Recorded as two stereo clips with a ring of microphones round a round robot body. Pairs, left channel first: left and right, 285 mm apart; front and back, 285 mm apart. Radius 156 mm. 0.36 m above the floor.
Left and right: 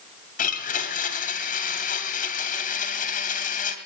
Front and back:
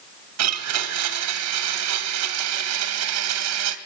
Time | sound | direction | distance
0.4 | a blender | 150° left | 2.5 m